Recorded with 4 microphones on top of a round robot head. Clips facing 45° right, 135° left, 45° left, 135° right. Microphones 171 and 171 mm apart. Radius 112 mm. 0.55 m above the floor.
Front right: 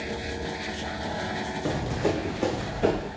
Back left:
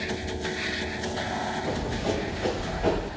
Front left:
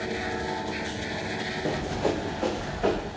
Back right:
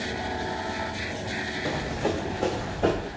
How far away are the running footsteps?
About 2.5 m.